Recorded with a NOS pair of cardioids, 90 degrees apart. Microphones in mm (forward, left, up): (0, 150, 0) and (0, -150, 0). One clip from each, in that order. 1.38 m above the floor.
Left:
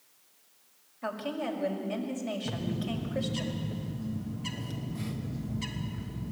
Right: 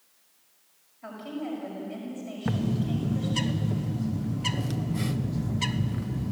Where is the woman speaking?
70° left, 5.5 m.